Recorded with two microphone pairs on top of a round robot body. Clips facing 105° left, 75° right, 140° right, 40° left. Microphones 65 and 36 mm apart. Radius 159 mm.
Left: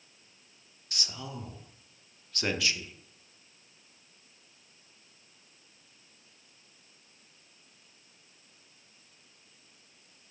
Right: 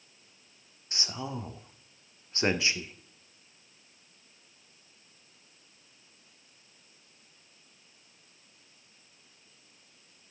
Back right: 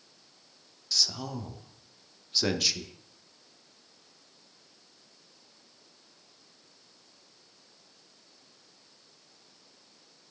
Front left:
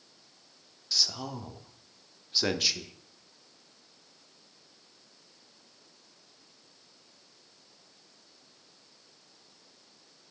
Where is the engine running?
No engine running in this recording.